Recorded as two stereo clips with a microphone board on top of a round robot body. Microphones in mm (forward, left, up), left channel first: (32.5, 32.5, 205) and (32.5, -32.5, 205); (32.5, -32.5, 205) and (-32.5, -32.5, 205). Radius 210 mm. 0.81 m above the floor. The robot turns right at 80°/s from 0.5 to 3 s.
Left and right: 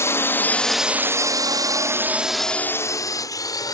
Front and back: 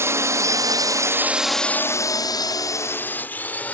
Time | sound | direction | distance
0.0 | a drone | 135° left | ?